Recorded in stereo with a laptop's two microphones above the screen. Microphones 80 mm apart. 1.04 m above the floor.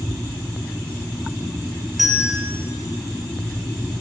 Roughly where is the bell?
Centre.